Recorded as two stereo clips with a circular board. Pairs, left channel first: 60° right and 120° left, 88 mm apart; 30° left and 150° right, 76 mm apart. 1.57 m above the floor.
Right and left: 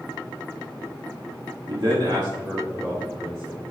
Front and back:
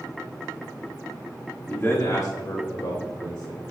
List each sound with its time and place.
1.7 s a man speaking: 100° left, 1.1 m; by 3.6 s 50° left, 2.5 m